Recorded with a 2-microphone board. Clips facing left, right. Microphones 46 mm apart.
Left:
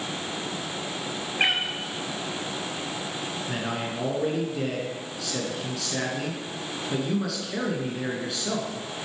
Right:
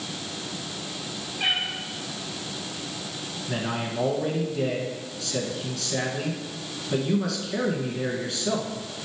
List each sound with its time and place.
1.4 s a cat meowing: 55° left (ahead or behind), 1.3 m
3.5 s a man speaking: centre (ahead or behind), 1.3 m